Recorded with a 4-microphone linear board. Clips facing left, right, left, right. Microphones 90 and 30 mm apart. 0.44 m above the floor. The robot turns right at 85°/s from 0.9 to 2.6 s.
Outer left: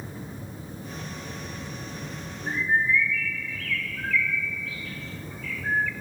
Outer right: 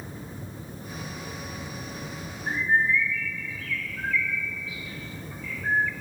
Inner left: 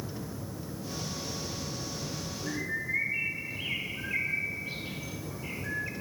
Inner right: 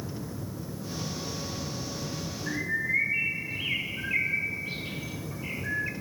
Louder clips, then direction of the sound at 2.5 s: Outer right 1 dB, inner right 4 dB; 25° right (ahead or behind).